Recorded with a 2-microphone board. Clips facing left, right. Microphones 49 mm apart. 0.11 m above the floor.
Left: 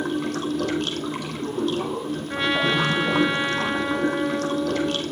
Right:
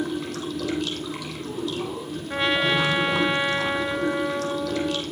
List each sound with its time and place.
0.0 s running water: 50° left (ahead or behind), 2.0 m
2.3 s a trumpet: centre (ahead or behind), 0.8 m